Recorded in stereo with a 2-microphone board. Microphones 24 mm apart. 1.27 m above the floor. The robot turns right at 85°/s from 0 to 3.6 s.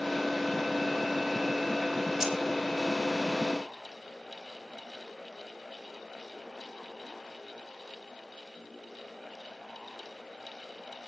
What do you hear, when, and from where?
2.2 s keys jangling: 25° right (ahead or behind), 2.5 m; by 2.4 s 40° right (ahead or behind), 2.5 m